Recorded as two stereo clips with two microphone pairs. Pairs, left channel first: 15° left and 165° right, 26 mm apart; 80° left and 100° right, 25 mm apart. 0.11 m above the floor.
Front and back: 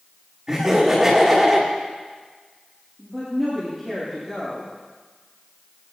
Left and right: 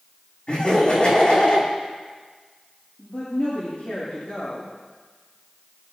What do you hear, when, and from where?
0.5 s laughter: 120° left, 8 m
3.0 s a woman speaking: 100° left, 6 m